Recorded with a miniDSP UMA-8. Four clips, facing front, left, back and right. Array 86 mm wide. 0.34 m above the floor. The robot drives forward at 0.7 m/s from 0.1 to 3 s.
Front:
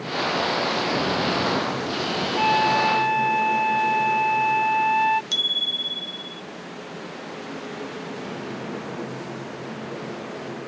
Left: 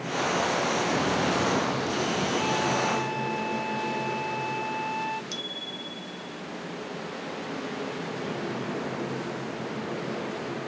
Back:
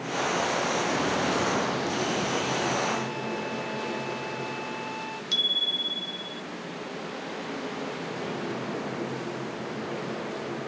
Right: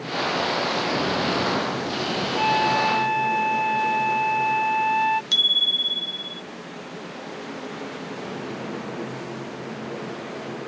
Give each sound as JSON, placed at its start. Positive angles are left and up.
{"t": 2.4, "sound": "a flute", "azimuth_deg": -35}
{"t": 5.3, "sound": "a bicycle bell", "azimuth_deg": -80}